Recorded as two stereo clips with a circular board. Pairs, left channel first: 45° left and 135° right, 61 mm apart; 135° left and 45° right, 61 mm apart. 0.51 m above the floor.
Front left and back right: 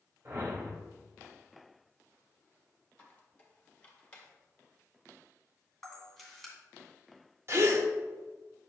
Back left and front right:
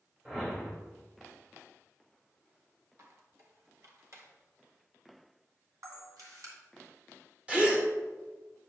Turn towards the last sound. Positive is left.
turn(degrees=-115)